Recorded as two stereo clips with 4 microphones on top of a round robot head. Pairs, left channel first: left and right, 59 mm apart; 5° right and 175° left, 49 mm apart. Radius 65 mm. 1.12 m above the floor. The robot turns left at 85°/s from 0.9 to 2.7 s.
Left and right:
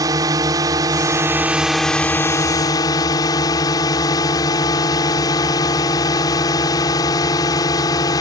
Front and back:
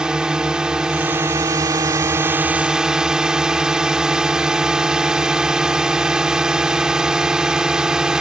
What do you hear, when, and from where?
0.0 s a drone: 105° right; by 8.2 s 100° left